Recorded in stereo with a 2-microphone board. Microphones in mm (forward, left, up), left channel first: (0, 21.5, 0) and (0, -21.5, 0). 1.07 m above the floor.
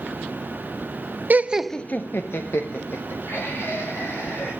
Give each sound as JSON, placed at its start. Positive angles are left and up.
{"t": 1.3, "sound": "laughter", "side_deg": -40, "distance_m": 0.7}